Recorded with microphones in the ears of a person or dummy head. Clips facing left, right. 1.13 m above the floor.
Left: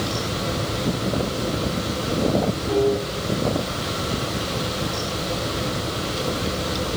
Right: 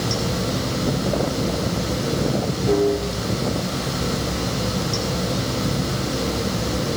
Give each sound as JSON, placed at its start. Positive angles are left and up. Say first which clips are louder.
{"t": 0.0, "sound": "running water", "louder": "right 2 dB", "side_deg": -75, "distance_m": 6.0}